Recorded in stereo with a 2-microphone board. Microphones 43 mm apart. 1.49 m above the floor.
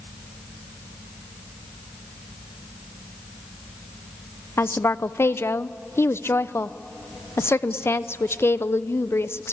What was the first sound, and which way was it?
A woman speaking, 70° left (ahead or behind).